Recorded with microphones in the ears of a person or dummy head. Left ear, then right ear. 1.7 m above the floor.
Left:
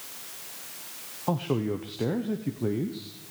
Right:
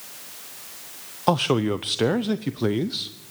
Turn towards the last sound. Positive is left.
turn(degrees=-60)  # may be behind; listen again after turning